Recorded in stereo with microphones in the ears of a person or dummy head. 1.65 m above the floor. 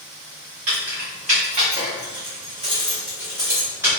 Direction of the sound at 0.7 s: 50° right (ahead or behind).